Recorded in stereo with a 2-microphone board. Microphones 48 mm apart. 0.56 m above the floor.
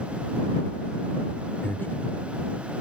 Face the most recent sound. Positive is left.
turn(degrees=50)  # may be behind; listen again after turning